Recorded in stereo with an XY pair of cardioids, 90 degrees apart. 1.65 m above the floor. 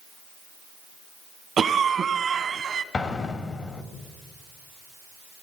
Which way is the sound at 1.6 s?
55° right.